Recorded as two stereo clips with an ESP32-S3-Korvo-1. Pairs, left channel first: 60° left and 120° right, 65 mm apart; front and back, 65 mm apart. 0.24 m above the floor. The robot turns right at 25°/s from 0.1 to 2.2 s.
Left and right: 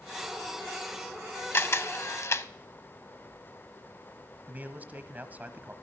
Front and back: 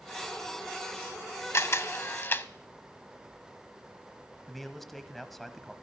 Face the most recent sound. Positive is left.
turn(degrees=-85)